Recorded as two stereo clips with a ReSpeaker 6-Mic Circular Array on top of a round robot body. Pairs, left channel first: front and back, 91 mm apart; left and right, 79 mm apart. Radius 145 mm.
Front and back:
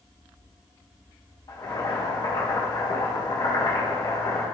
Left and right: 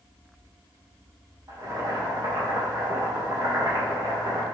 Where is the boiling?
45° right, 2.0 m.